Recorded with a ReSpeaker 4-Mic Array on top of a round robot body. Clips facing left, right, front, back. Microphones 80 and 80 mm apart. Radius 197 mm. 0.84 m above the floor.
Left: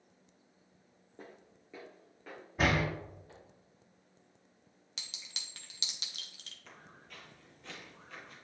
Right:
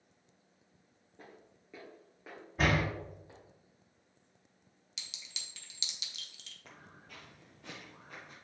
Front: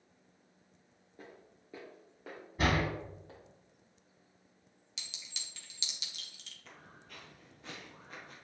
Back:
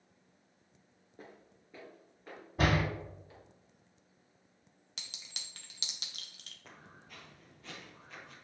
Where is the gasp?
No gasp in this recording.